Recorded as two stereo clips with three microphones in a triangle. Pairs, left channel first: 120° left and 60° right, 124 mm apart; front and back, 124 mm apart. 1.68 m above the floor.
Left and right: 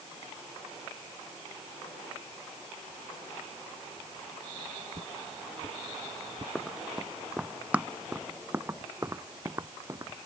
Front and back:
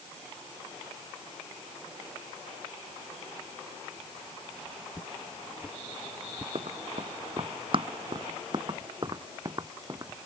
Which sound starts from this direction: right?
Footsteps, at 4.9 s.